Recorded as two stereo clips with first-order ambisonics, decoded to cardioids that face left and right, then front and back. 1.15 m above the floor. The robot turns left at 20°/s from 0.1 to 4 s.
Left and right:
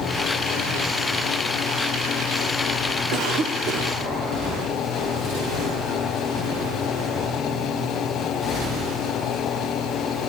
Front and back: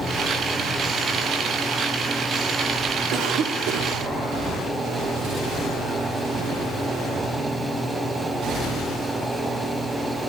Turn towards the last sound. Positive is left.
turn(degrees=-155)